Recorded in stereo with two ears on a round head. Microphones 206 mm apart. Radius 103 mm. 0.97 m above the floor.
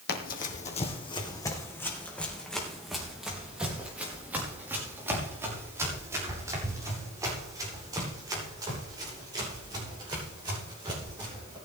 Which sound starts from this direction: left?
Running footsteps, at 0.1 s.